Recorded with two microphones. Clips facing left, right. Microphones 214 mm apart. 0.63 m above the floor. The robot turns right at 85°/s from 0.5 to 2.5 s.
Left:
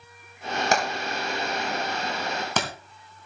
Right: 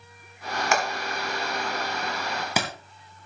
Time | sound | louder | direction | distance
0.7 | hammering | even | 35° left (ahead or behind) | 3.5 m